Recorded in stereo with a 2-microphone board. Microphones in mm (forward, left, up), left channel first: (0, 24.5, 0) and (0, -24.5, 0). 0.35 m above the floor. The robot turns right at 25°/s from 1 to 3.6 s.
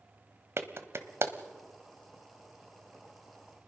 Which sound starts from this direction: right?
A clap, at 0.6 s.